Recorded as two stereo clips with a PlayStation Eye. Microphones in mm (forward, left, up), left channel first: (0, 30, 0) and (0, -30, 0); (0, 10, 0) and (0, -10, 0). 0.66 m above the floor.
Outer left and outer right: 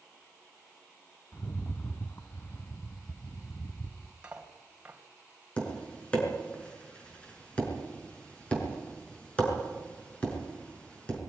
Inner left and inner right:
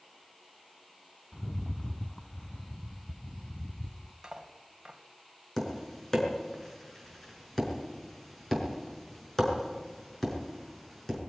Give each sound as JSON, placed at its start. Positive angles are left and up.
{"t": 1.3, "sound": "a rattle", "side_deg": 40, "distance_m": 1.0}
{"t": 4.2, "sound": "cutlery clinking", "side_deg": -20, "distance_m": 2.5}
{"t": 5.6, "sound": "tapping", "side_deg": 20, "distance_m": 5.5}